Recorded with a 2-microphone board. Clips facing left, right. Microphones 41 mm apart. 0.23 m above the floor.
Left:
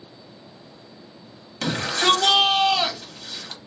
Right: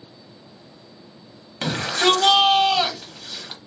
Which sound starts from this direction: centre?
A shout, at 1.6 s.